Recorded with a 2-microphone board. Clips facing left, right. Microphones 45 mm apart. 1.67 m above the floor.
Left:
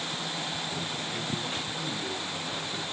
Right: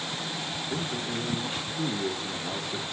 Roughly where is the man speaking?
Right.